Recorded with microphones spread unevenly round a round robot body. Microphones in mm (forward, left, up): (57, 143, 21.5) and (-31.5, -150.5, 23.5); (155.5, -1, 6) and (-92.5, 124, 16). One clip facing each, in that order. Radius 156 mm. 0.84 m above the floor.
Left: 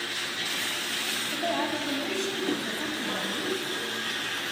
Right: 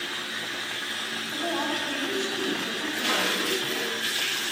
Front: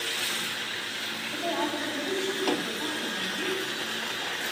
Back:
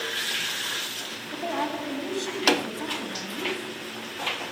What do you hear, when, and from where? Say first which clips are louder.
1.3 s a woman speaking: even, even; 115° left, 7.5 m